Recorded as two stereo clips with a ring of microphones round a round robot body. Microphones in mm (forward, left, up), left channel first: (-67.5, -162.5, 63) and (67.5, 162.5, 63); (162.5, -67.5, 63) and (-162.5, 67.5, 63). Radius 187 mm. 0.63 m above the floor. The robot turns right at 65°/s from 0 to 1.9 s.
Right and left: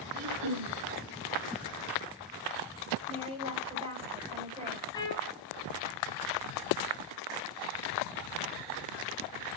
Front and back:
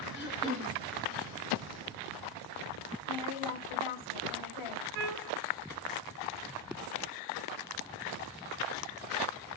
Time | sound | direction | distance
0.1 | throat clearing | 35° left | 3 m
3.1 | a woman speaking | 5° right | 4 m
4.9 | a trumpet | 165° left | 3 m